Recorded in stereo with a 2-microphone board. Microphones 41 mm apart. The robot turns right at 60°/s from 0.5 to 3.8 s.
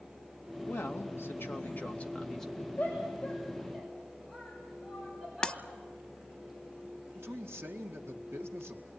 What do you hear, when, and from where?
0.6 s a woman speaking: 70° left, 2.5 m; by 2.7 s 170° right, 2.5 m
2.8 s a shout: 50° left (ahead or behind), 6.5 m; by 5.6 s 10° right (ahead or behind), 6.5 m
5.4 s breaking glass: 25° left (ahead or behind), 0.8 m
7.2 s a man speaking: 85° right, 2 m